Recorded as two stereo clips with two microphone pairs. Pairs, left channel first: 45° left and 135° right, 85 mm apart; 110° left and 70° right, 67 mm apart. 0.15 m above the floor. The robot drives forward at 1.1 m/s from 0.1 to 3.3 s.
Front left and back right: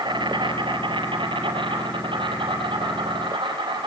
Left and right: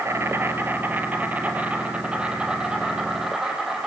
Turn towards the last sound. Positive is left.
turn(degrees=-155)